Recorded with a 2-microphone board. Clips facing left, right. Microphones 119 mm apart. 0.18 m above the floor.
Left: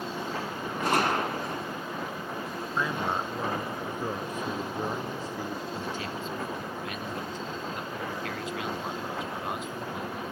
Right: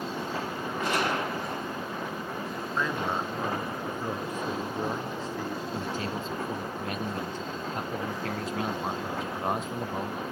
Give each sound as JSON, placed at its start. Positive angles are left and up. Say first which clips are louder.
{"t": 0.8, "sound": "a gunshot", "louder": "left 3 dB", "side_deg": 45, "distance_m": 2.5}
{"t": 2.8, "sound": "a man speaking", "louder": "even", "side_deg": 15, "distance_m": 2.0}
{"t": 5.7, "sound": "a man speaking", "louder": "right 2 dB", "side_deg": -40, "distance_m": 1.4}